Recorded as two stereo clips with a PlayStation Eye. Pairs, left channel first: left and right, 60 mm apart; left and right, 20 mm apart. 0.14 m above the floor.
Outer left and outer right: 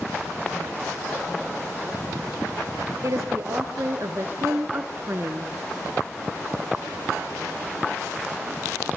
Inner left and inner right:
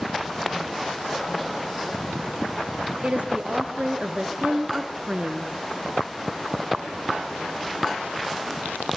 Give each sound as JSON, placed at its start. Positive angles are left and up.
{"t": 3.0, "sound": "a woman speaking", "side_deg": -60, "distance_m": 3.5}